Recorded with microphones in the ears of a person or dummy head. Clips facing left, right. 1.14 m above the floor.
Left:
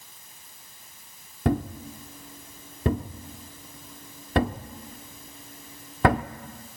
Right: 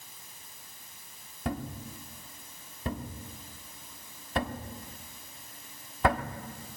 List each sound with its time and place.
1.4 s a thud: 50° left (ahead or behind), 1.0 m